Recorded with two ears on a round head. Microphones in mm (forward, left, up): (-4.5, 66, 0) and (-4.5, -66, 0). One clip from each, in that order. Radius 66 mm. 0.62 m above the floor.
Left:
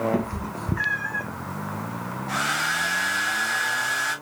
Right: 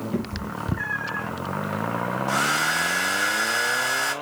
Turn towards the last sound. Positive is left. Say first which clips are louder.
# right 1 dB
turn(degrees=-45)  # may be behind; listen again after turning